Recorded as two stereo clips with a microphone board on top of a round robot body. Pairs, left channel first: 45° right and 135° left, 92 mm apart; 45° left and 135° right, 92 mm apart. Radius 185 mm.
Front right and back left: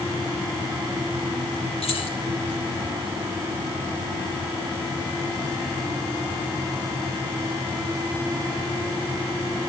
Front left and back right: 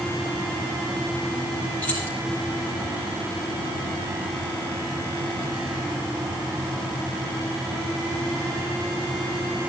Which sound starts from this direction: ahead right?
Keys jangling, at 1.8 s.